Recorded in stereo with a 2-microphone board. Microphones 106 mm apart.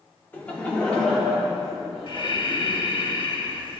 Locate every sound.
0.3 s laughter: 15° left (ahead or behind), 2 m; by 2.3 s centre (ahead or behind), 3 m
2.1 s breathing: 50° left (ahead or behind), 1.1 m